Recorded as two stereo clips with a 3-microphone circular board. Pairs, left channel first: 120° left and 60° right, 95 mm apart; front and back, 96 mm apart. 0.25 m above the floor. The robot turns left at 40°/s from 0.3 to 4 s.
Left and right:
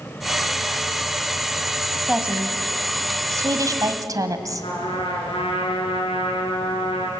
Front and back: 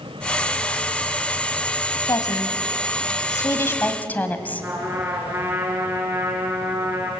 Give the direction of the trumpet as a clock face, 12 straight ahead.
8 o'clock.